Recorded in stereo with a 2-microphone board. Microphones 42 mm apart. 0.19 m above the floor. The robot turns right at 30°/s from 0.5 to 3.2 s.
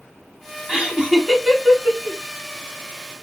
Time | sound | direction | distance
0.7 | laughter | 15° right (ahead or behind) | 1.2 m